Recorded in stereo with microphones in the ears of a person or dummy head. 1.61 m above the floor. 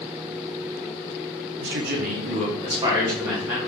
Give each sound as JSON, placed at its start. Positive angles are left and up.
{"t": 1.6, "sound": "a man speaking", "side_deg": -60, "distance_m": 0.8}